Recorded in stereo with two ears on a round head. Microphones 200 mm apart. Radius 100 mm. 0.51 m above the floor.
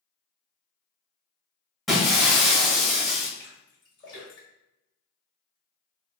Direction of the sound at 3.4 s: 20° left (ahead or behind).